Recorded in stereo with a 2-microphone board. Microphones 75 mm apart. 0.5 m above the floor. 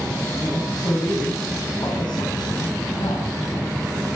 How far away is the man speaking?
About 3.5 m.